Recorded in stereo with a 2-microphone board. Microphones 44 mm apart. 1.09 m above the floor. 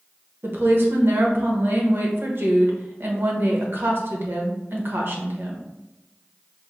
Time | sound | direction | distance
0.4 | a woman speaking | 55° right (ahead or behind) | 1.0 m